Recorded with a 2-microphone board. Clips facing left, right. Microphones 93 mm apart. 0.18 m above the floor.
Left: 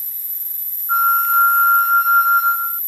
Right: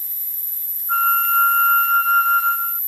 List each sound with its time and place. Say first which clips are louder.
0.9 s a flute: left 3 dB; 20° left (ahead or behind)